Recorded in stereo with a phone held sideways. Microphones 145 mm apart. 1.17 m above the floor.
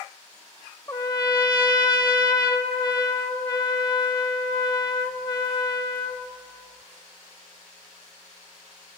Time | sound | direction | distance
0.9 | a trumpet | 30° left (ahead or behind) | 1.2 m